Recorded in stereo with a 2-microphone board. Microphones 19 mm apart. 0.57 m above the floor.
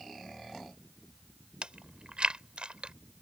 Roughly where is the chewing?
Right.